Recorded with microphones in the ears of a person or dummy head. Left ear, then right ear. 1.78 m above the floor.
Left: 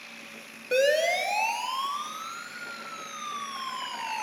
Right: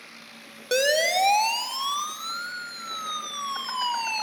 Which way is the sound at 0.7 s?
90° right.